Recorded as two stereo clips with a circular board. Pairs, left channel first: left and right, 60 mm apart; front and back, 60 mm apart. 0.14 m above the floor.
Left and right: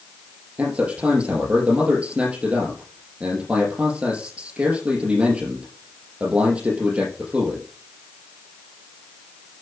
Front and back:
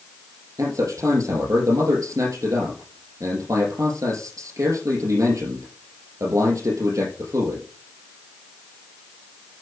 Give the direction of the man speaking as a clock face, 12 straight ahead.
5 o'clock.